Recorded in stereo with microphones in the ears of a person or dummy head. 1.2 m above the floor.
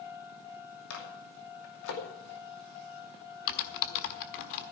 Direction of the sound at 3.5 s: 60° left (ahead or behind).